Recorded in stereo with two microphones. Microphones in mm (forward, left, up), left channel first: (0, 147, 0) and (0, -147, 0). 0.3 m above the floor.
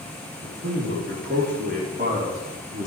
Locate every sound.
0.4 s a man speaking: 45° right (ahead or behind), 4.5 m; by 2.9 s 30° right (ahead or behind), 5 m